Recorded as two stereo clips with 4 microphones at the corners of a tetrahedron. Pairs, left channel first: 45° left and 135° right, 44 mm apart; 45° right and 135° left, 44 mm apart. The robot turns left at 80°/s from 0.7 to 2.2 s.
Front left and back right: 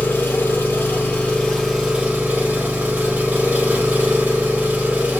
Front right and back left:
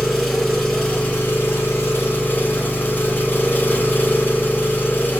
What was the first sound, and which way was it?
An engine running, 30° left.